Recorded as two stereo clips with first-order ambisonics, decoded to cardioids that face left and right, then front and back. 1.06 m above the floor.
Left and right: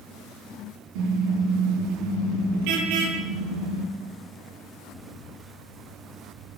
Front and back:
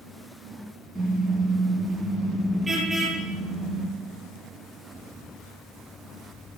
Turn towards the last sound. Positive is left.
turn(degrees=-95)